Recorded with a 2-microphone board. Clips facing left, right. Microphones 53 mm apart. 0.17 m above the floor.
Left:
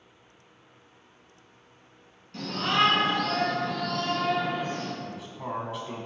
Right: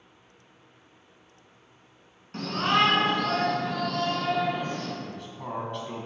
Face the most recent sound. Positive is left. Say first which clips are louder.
# left 1 dB
turn(degrees=5)  # may be behind; listen again after turning